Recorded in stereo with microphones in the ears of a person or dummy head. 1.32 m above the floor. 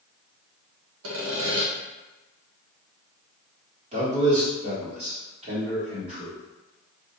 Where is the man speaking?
30° right (ahead or behind), 1.1 m.